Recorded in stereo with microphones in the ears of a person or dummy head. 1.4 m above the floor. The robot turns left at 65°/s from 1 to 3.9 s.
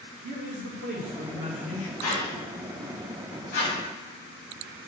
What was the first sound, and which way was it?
A man speaking, 135° right.